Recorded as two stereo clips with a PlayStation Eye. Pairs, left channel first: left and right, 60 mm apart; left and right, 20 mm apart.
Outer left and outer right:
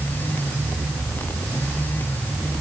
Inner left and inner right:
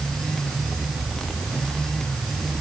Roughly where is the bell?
I don't hear a bell.